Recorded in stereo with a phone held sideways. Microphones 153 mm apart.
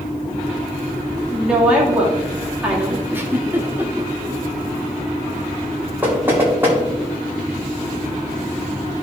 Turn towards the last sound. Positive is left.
turn(degrees=-15)  # may be behind; listen again after turning